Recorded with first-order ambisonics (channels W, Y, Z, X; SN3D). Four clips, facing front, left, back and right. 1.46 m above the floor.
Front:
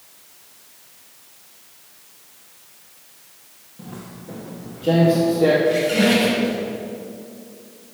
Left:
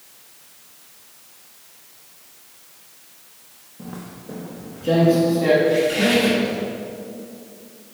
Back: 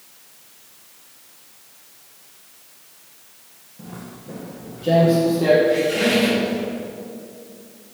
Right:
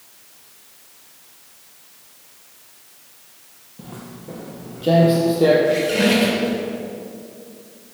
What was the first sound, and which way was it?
Footsteps, 80° right.